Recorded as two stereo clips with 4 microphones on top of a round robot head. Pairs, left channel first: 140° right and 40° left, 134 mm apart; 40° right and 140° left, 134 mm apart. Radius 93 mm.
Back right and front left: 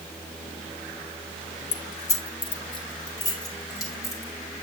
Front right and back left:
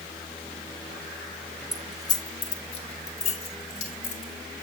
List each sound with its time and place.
1.7 s keys jangling: 130° right, 0.6 m; by 4.3 s 75° right, 3.5 m